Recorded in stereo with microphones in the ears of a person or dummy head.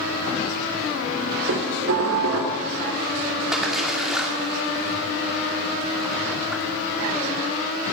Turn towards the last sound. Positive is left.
turn(degrees=-5)  # may be behind; listen again after turning